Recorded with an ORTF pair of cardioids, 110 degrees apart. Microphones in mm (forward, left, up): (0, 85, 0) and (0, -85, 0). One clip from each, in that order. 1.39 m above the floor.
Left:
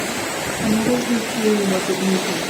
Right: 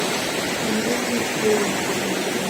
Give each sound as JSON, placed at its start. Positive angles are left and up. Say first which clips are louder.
{"t": 0.6, "sound": "a woman speaking", "louder": "left 2 dB", "azimuth_deg": 65, "distance_m": 0.8}